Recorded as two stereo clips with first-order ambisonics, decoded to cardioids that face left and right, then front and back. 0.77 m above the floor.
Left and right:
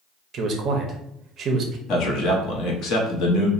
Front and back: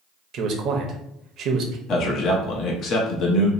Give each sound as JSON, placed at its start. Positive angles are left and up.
{"t": 0.3, "sound": "a man speaking", "azimuth_deg": -140, "distance_m": 0.6}
{"t": 1.9, "sound": "a man speaking", "azimuth_deg": 50, "distance_m": 0.8}